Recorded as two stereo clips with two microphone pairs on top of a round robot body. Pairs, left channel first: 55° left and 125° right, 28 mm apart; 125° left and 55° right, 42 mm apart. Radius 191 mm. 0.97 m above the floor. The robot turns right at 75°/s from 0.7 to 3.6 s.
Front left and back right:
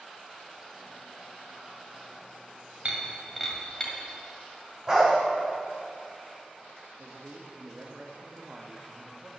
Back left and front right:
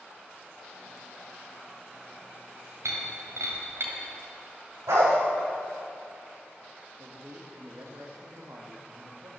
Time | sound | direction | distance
2.9 | breaking glass | 75° right | 1.7 m
4.9 | a dog barking | 55° right | 2 m
7.0 | a man speaking | 75° right | 1.5 m